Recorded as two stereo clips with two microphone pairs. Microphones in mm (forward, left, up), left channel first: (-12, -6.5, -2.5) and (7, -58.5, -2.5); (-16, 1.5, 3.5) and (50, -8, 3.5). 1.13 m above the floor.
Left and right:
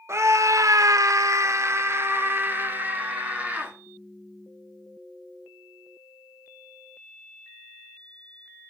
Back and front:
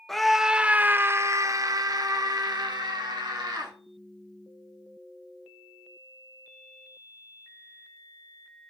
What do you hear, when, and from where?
0.1 s a scream: 100° right, 0.9 m; by 3.7 s 10° right, 1.9 m